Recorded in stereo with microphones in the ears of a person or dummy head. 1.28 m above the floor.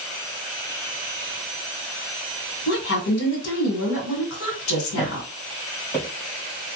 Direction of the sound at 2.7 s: 65° left (ahead or behind).